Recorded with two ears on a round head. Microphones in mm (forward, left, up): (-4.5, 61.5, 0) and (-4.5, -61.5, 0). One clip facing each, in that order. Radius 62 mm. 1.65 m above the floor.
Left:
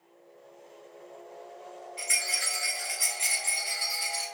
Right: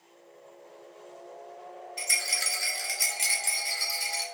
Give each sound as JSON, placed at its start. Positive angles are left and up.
{"t": 2.0, "sound": "a rattle", "side_deg": -50, "distance_m": 2.5}